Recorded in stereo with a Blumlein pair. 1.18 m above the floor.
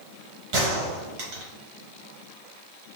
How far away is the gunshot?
About 1.4 m.